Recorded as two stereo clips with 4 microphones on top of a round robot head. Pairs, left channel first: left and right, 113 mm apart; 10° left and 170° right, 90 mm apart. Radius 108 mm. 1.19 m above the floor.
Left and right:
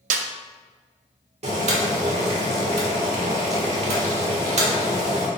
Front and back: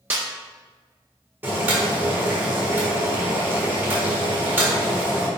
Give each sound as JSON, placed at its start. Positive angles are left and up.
{"t": 0.1, "sound": "a snare drum", "azimuth_deg": -95, "distance_m": 0.5}
{"t": 1.4, "sound": "boiling", "azimuth_deg": -100, "distance_m": 1.6}